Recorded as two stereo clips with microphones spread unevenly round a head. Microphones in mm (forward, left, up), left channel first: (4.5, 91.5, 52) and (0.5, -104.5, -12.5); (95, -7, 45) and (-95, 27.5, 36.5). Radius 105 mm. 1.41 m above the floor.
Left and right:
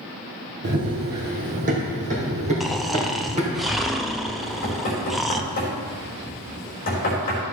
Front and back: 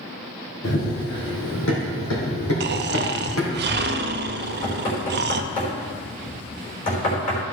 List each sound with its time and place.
0.6 s running footsteps: 45° right, 2.5 m; by 3.6 s 25° right, 4.5 m
2.6 s snoring: 170° right, 0.6 m
4.4 s knocking: 40° left, 4 m